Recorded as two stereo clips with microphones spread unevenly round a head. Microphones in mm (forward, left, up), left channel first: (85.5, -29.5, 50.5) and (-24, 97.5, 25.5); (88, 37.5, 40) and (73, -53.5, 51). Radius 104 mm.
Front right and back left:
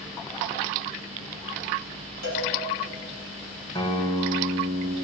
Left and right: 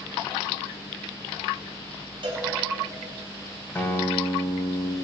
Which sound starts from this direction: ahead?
A guitar, at 3.8 s.